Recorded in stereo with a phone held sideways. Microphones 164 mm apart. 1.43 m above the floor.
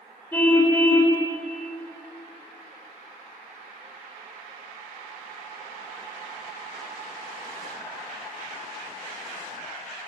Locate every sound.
0.3 s a car horn: 10° left (ahead or behind), 3 m